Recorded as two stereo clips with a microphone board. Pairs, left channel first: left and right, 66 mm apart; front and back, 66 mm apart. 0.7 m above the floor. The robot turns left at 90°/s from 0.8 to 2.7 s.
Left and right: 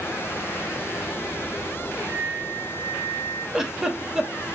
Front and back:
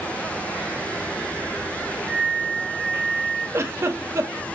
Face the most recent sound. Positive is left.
turn(degrees=-170)